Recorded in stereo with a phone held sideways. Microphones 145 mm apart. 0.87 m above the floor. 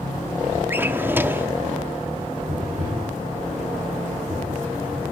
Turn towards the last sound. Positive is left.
turn(degrees=-80)